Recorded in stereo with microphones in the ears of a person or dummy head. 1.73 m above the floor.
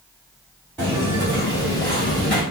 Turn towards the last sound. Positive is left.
turn(degrees=20)  # may be behind; listen again after turning